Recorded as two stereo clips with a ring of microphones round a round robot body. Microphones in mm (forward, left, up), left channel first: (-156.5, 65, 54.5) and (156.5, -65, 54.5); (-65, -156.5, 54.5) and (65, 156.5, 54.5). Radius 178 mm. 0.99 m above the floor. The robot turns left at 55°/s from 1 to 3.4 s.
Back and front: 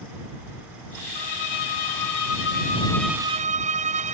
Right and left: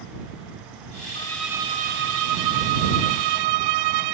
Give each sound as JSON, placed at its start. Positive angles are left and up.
{"t": 1.1, "sound": "a violin", "azimuth_deg": 170}